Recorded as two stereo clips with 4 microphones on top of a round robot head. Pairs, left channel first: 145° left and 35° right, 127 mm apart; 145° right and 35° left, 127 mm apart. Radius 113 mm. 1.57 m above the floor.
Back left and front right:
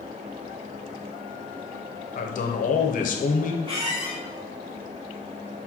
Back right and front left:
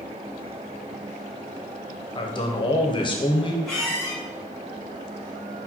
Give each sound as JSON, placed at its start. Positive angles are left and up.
{"t": 2.1, "sound": "a man speaking", "azimuth_deg": 160, "distance_m": 1.0}
{"t": 3.6, "sound": "a squeak", "azimuth_deg": -60, "distance_m": 1.3}